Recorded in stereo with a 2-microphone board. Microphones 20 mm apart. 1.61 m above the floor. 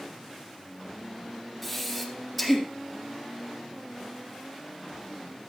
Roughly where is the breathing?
Centre.